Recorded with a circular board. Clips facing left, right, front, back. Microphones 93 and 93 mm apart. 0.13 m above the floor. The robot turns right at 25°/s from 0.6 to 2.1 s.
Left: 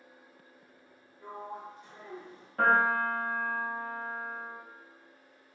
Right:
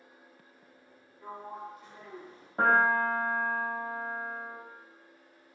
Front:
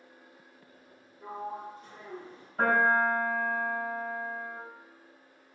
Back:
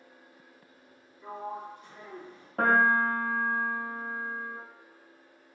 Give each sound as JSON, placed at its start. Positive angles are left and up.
{"t": 1.2, "sound": "a sliding door", "azimuth_deg": 20, "distance_m": 1.2}
{"t": 2.6, "sound": "a piano", "azimuth_deg": -155, "distance_m": 0.8}